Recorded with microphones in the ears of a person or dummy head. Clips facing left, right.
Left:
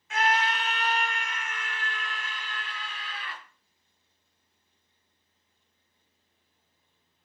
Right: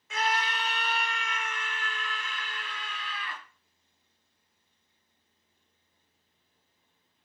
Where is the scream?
75° right (ahead or behind), 1.6 m; by 3.4 s 70° right (ahead or behind), 3.5 m.